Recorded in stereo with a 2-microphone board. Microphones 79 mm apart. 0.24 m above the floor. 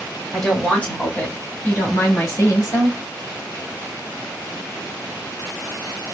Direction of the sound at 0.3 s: 5° left (ahead or behind).